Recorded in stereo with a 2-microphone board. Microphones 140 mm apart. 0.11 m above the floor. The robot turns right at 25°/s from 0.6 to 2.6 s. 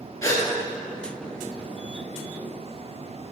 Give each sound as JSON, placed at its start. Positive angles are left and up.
{"t": 0.2, "sound": "a gasp", "side_deg": 20, "distance_m": 2.5}